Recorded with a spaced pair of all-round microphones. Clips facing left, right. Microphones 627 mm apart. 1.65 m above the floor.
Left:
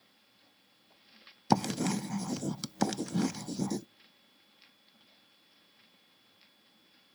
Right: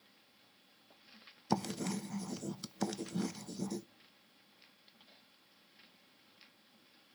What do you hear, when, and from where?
1.5 s writing: 85° left, 0.6 m